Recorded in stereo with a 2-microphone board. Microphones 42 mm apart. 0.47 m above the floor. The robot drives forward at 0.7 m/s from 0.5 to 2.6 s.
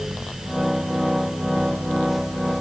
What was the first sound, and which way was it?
Only background noise.